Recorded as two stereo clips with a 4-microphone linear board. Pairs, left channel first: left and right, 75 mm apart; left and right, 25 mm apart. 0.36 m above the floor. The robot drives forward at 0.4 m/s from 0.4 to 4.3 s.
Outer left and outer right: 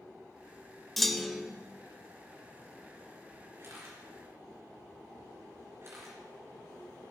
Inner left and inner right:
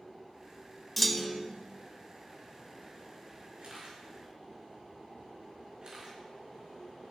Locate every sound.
1.0 s a clunk: centre (ahead or behind), 0.6 m
3.6 s a camera shutter: 35° right (ahead or behind), 4.5 m; by 6.2 s 40° right (ahead or behind), 4.5 m